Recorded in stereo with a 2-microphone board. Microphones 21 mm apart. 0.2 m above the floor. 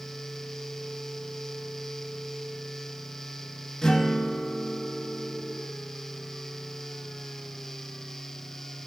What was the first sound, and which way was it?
A guitar, 35° left (ahead or behind).